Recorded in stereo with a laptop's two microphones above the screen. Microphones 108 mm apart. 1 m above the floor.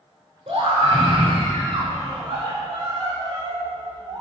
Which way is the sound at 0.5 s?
65° right (ahead or behind).